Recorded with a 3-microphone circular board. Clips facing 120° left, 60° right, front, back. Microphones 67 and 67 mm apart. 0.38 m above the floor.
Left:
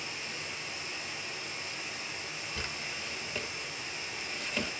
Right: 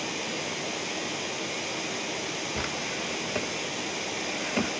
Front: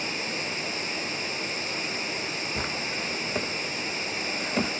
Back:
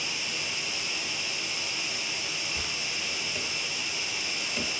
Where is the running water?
50° right, 1.1 m.